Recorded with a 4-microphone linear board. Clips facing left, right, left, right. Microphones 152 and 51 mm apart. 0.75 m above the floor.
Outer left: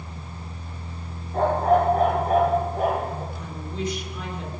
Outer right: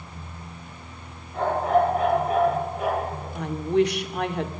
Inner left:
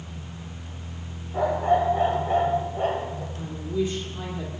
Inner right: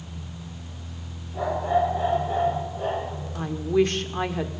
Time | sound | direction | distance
1.3 | a dog barking | 40° left (ahead or behind) | 8.5 m
3.4 | a woman speaking | 70° right (ahead or behind) | 2.5 m